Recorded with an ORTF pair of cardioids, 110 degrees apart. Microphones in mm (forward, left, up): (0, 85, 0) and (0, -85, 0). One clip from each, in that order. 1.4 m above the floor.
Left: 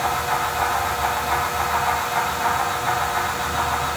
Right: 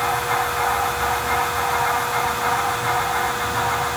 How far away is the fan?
About 3.5 m.